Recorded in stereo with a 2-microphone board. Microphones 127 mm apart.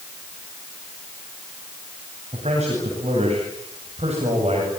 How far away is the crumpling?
I don't hear crumpling.